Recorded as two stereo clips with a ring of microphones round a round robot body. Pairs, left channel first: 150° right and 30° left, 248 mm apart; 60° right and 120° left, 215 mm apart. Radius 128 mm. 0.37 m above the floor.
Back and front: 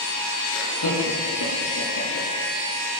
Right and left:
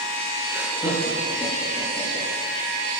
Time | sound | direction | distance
0.5 | laughter | 160° right | 8.5 m